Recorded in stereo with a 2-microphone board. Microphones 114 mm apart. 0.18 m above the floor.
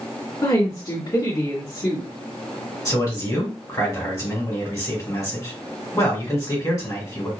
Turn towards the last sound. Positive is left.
turn(degrees=35)  # may be behind; listen again after turning